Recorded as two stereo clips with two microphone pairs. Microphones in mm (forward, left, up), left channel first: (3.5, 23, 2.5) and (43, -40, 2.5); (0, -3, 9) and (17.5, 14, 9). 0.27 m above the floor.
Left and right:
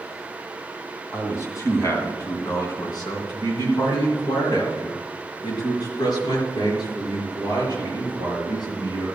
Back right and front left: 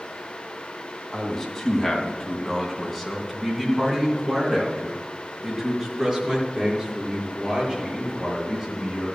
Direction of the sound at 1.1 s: 160° left.